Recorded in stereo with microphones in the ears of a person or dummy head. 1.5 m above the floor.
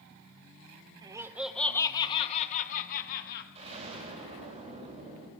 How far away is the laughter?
About 0.9 m.